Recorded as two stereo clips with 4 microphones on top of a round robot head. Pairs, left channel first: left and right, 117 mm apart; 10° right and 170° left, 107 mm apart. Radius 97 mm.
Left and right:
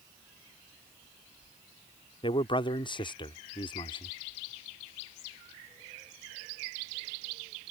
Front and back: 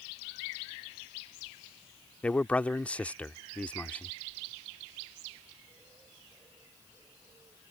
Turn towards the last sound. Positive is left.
turn(degrees=65)